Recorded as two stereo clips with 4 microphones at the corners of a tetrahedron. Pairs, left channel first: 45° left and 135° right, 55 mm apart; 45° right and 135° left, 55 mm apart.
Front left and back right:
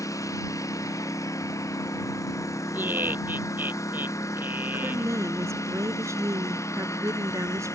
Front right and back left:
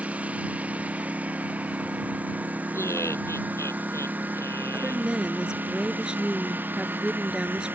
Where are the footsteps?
No footsteps in this recording.